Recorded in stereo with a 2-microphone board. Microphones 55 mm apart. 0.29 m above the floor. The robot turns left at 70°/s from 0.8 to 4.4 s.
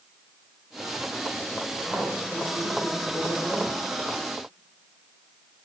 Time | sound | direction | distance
1.8 | a woman speaking | 170° right | 5.5 m